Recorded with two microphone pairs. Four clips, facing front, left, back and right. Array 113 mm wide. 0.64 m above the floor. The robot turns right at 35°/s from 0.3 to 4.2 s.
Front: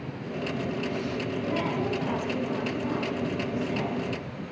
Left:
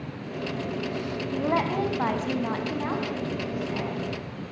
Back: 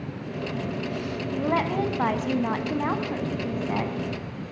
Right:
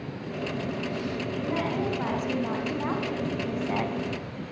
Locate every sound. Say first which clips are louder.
1.3 s a woman speaking: left 6 dB, back 6 dB; 130° left, 5 m; by 4.0 s 140° right, 5 m